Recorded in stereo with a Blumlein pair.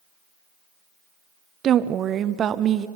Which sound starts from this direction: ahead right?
A woman speaking, at 1.6 s.